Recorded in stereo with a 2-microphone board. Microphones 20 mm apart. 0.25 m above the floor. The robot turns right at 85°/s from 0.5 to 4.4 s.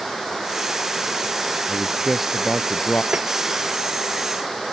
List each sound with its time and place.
1.7 s a man speaking: 45° right; by 3.0 s 70° left
3.1 s tapping: 75° right (ahead or behind)